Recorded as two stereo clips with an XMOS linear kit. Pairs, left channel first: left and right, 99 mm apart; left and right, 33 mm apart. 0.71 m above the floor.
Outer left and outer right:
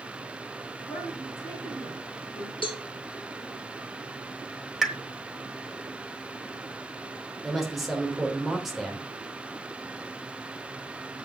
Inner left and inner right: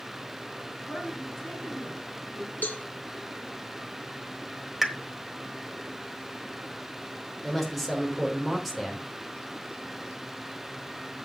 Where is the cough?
I don't hear a cough.